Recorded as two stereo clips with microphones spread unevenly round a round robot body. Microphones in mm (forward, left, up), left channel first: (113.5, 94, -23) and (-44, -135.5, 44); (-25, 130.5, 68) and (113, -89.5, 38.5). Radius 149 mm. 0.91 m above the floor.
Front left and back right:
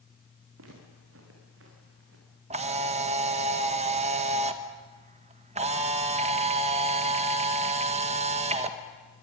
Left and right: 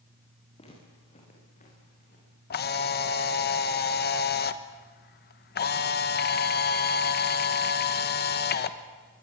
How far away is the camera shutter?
About 1.1 m.